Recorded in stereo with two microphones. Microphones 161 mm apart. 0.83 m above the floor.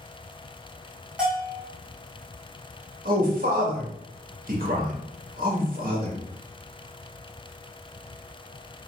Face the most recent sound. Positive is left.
turn(degrees=-65)  # may be behind; listen again after turning